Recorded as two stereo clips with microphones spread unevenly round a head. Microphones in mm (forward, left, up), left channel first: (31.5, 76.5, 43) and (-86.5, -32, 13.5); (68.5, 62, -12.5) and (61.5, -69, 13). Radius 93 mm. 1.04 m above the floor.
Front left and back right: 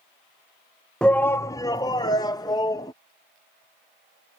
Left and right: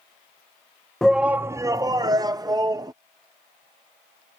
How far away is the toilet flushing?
No toilet flushing in this recording.